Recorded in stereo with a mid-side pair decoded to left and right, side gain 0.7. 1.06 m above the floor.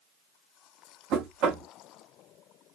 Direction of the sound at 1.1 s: 50° right.